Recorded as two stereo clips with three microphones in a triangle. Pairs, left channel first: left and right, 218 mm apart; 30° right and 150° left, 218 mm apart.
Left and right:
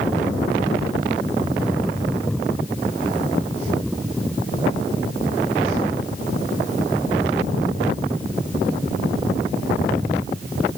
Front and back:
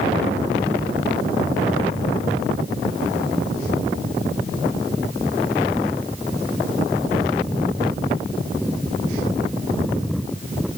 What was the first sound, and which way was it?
Only background noise.